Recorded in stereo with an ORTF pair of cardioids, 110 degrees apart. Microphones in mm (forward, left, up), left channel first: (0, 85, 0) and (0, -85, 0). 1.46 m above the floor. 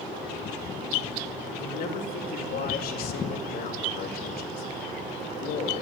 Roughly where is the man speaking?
Ahead left.